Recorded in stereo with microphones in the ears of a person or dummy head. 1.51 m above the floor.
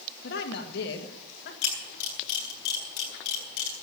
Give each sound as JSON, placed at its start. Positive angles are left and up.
{"t": 0.2, "sound": "a woman speaking", "side_deg": 65, "distance_m": 2.0}
{"t": 1.6, "sound": "a camera shutter", "side_deg": 55, "distance_m": 6.0}